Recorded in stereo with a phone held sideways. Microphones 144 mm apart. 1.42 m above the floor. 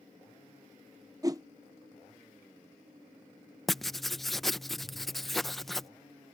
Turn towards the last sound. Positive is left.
turn(degrees=0)  # may be behind; listen again after turning